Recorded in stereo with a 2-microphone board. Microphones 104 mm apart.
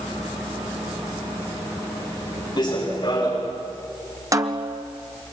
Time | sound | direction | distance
2.6 | running footsteps | 45° left (ahead or behind) | 8 m
4.3 | a snare drum | 35° right (ahead or behind) | 1.3 m